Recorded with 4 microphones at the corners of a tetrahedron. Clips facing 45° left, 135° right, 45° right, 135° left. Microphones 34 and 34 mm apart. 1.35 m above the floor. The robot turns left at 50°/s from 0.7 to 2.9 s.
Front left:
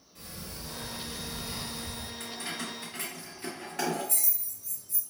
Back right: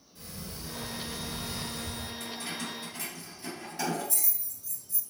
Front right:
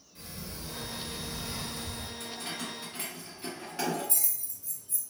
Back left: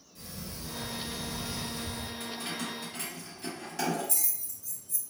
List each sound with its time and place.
0.1 s a sliding door: 15° left, 1.6 m; by 2.1 s 55° right, 1.6 m
2.2 s keys jangling: 65° left, 1.9 m; by 5.0 s 30° left, 1.9 m